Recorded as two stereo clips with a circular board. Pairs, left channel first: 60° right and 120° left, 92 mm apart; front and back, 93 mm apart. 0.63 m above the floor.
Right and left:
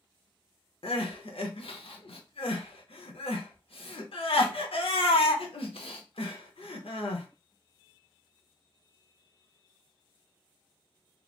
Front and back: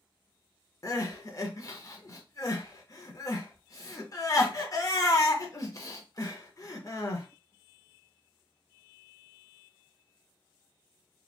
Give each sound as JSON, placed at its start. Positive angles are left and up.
{"t": 0.8, "sound": "crying", "azimuth_deg": -55, "distance_m": 0.6}